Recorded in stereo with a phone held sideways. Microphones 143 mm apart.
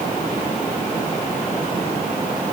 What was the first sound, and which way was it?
Only background noise.